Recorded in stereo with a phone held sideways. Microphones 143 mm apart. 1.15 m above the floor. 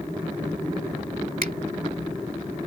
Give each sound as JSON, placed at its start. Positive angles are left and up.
{"t": 1.4, "sound": "a finger snap", "side_deg": -75}